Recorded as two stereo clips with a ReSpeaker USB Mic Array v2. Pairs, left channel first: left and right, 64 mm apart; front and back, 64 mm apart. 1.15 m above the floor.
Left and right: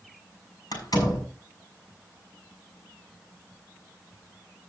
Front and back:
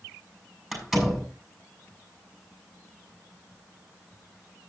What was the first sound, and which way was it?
A door slam, 95° left.